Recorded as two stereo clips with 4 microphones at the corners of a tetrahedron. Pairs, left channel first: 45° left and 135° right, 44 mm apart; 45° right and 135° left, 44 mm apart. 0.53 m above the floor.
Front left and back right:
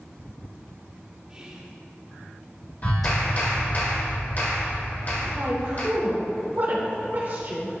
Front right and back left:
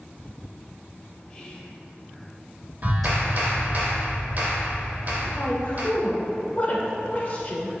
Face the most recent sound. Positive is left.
turn(degrees=-100)